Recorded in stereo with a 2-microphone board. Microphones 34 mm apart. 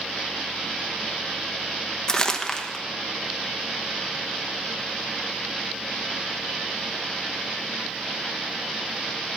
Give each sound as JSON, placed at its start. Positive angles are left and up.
{"t": 2.1, "sound": "crumpling", "side_deg": 15, "distance_m": 0.9}